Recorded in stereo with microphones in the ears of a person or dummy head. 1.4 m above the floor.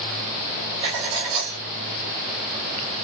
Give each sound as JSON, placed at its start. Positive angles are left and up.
{"t": 0.8, "sound": "writing", "side_deg": -30, "distance_m": 1.7}